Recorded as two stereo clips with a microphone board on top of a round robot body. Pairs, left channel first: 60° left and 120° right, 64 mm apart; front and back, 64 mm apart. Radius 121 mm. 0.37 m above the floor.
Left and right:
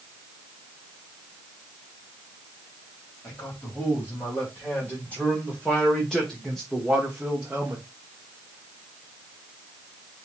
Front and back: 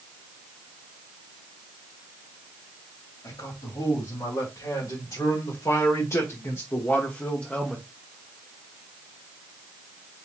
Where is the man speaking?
5° left, 3 m; by 7.9 s 80° right, 1.2 m.